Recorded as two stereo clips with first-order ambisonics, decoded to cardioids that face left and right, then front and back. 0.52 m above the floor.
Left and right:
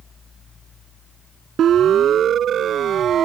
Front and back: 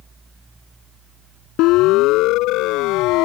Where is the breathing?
I don't hear breathing.